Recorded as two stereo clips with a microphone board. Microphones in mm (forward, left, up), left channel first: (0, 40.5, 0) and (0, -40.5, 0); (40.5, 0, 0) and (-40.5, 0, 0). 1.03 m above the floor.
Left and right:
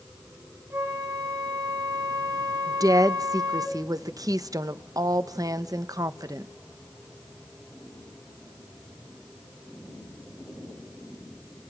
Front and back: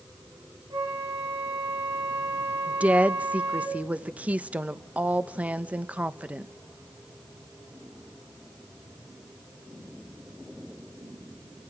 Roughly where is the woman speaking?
Right.